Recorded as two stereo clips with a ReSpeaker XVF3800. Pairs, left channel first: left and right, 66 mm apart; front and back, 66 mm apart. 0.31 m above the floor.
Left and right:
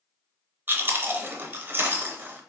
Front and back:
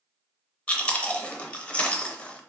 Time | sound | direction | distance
0.7 | chewing | 60° right | 0.6 m